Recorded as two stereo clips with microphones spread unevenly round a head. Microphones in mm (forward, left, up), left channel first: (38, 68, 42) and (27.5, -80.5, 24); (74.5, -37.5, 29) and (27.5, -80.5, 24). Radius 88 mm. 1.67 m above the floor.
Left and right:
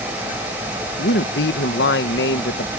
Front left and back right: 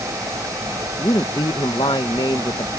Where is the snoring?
No snoring in this recording.